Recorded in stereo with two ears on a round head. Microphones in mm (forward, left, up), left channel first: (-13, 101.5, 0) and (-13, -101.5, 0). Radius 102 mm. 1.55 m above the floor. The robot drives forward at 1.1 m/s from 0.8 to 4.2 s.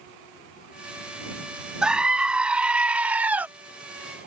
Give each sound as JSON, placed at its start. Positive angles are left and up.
{"t": 1.8, "sound": "a scream", "side_deg": -5}